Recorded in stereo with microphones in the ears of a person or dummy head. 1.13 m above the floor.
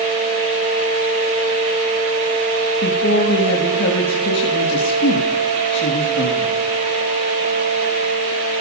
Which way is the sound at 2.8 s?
70° left (ahead or behind).